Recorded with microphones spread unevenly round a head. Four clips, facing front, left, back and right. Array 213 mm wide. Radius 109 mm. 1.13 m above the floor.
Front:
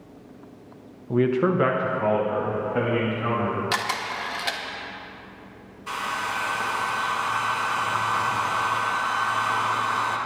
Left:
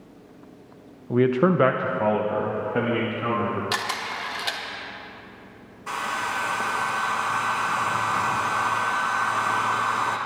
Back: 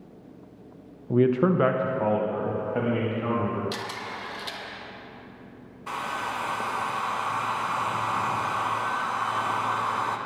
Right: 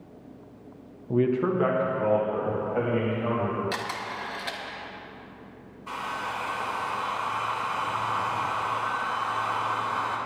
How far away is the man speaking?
About 0.5 m.